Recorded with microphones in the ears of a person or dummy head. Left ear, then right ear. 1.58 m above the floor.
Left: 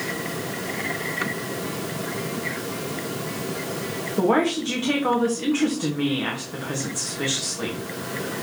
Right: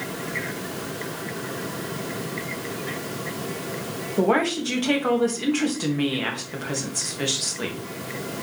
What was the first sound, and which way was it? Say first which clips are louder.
A woman speaking: even; 20° right (ahead or behind).